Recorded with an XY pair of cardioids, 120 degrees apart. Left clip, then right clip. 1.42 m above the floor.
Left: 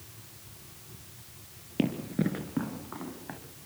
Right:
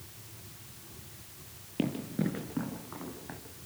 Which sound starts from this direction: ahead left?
Running footsteps, at 1.8 s.